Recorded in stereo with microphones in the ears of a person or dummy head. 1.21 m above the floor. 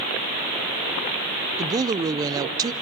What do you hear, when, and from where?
1.6 s a woman speaking: 25° right (ahead or behind), 0.5 m